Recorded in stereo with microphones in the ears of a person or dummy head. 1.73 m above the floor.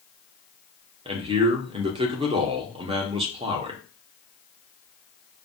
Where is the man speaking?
30° right (ahead or behind), 1.1 m.